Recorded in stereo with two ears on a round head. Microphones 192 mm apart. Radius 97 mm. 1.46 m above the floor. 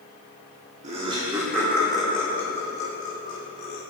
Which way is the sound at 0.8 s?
40° right (ahead or behind).